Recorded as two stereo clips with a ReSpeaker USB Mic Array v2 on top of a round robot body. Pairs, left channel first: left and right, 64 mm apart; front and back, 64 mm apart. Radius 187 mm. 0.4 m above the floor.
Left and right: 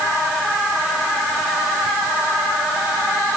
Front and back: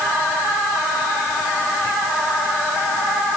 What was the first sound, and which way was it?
Only background noise.